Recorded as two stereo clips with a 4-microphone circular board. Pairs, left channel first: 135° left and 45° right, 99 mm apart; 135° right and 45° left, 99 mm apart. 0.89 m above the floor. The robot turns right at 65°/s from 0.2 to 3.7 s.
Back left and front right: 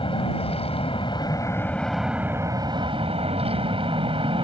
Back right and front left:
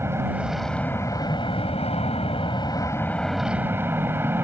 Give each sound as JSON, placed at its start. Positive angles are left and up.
{"t": 0.0, "sound": "an aircraft", "azimuth_deg": 110}